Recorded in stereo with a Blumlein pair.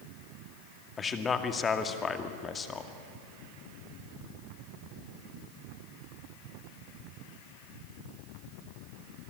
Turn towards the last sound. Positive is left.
turn(degrees=20)